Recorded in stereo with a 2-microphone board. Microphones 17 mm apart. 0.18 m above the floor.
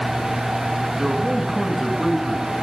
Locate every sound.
1.0 s a man speaking: 5° right (ahead or behind), 2 m